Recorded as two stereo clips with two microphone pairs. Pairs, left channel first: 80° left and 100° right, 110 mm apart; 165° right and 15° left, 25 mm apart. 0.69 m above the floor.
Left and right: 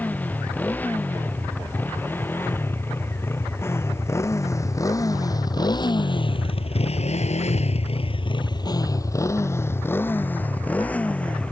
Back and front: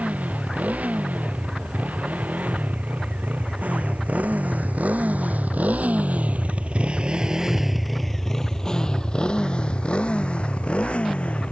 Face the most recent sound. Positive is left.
turn(degrees=160)